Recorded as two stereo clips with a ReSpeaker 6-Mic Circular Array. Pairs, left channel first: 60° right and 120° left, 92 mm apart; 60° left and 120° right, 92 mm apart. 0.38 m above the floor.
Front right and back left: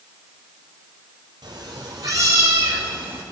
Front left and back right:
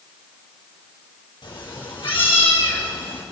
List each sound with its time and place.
1.4 s a cat meowing: 80° left, 3.5 m; by 3.2 s 50° left, 4 m